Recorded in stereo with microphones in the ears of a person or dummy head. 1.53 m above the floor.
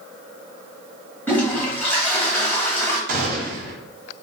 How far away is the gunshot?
About 0.9 m.